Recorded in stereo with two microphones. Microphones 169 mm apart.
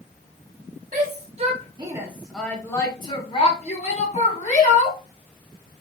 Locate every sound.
0.9 s a shout: 50° right (ahead or behind), 0.8 m; by 5.0 s 50° left (ahead or behind), 1.5 m